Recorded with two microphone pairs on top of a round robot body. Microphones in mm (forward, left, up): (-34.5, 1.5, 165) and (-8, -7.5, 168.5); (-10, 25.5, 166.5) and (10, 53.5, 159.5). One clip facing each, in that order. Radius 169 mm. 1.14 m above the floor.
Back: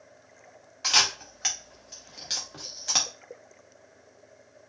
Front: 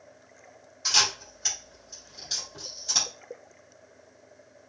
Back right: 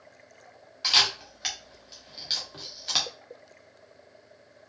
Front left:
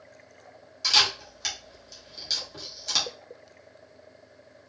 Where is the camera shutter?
175° left, 1.1 m.